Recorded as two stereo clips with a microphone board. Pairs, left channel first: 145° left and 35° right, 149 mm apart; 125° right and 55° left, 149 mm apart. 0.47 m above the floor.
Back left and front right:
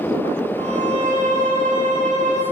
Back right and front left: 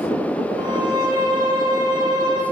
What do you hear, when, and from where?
0.6 s a violin: 5° right, 2.5 m